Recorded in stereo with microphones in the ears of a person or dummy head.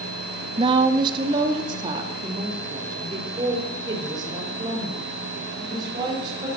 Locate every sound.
0.6 s a woman speaking: 30° right (ahead or behind), 1.0 m